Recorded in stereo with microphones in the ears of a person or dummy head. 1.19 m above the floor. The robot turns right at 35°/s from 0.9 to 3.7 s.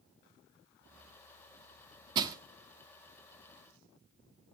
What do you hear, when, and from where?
2.1 s crushing: 25° right (ahead or behind), 1.2 m; by 2.4 s 20° right (ahead or behind), 1.2 m